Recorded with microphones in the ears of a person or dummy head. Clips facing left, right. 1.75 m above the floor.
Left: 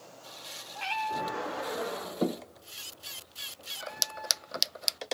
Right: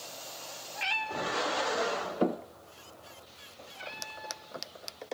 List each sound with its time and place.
0.8 s a cat meowing: 20° right (ahead or behind), 3.5 m; by 5.2 s 45° right (ahead or behind), 5 m